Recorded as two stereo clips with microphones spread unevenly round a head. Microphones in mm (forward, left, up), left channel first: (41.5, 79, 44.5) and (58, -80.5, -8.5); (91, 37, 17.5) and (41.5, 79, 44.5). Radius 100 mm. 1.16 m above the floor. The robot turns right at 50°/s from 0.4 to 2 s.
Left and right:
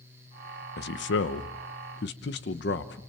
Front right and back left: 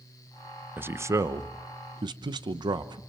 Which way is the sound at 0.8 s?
75° left.